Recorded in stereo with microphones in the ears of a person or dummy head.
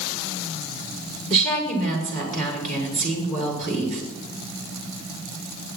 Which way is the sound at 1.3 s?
40° right (ahead or behind).